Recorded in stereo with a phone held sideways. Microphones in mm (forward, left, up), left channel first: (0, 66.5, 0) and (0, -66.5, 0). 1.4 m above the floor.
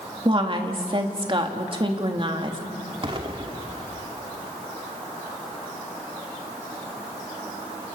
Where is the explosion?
40° right (ahead or behind), 2.0 m.